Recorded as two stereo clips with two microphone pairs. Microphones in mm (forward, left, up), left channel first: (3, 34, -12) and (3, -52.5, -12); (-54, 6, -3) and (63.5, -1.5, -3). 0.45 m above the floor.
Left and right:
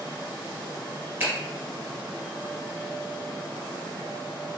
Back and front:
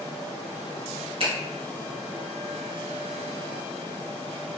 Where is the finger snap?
35° right, 1.7 m.